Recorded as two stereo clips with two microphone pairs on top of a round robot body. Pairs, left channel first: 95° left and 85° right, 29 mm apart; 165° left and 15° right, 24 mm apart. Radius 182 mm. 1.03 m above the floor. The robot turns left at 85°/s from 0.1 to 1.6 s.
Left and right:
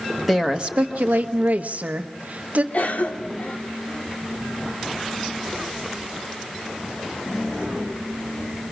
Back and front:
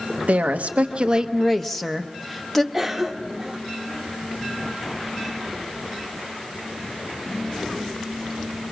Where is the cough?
70° left, 1.3 m.